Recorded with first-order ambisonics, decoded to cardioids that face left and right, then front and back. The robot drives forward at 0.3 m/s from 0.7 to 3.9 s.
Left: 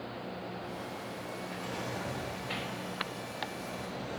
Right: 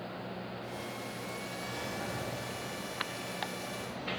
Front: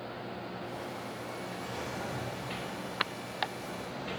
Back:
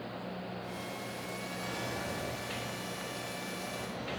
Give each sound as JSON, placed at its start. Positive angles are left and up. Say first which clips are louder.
{"t": 1.6, "sound": "a drawer", "louder": "left 1 dB, back 2 dB", "azimuth_deg": 145, "distance_m": 1.3}